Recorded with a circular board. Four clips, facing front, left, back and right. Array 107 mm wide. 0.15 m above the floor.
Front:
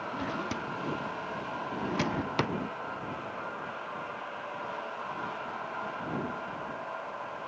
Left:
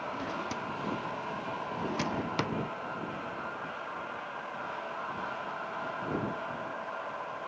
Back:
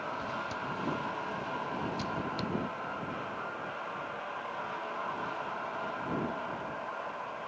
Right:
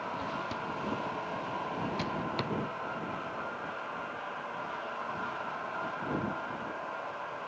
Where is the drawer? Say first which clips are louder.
Even, front 2 dB; 20° left.